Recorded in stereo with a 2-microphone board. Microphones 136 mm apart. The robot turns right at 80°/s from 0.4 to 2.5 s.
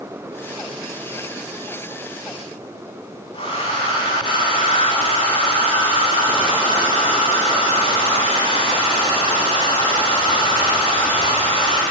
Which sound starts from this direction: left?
A hair dryer, at 3.3 s.